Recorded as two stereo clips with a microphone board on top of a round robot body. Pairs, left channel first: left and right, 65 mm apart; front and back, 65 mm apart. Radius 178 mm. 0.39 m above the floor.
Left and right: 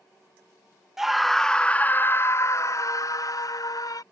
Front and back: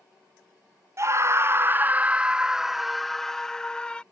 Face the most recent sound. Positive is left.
turn(degrees=75)